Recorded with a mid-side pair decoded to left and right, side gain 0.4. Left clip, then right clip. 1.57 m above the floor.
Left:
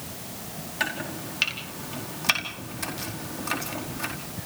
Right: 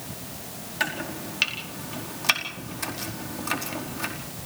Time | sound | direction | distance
0.8 | chopping | 10° right | 4.5 m